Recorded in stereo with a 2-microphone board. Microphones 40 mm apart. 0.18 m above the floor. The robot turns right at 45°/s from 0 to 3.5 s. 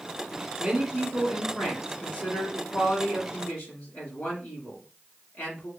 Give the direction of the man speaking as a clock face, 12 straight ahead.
1 o'clock.